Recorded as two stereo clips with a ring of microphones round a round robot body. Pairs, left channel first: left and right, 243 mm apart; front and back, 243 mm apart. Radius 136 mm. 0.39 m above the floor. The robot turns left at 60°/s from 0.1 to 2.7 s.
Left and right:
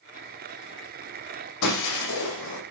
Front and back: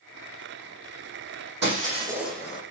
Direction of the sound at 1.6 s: 130° left.